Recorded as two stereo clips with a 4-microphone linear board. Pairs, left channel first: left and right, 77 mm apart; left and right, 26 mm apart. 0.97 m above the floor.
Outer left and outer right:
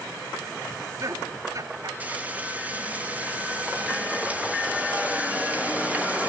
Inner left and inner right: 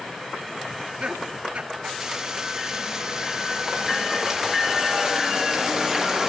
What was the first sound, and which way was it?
Laughter, 45° right (ahead or behind).